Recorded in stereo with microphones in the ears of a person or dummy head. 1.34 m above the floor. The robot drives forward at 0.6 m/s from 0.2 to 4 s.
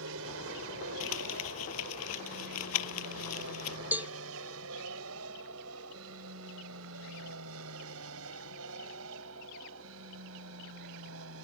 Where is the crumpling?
80° left; by 3.8 s 85° left.